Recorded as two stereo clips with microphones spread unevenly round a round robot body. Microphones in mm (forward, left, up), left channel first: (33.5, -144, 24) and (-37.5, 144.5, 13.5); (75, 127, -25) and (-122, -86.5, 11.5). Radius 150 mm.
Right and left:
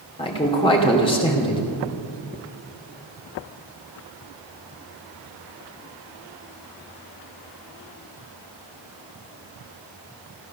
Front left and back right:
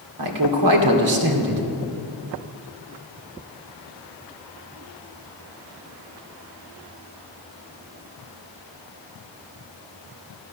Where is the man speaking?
150° right, 2.5 m.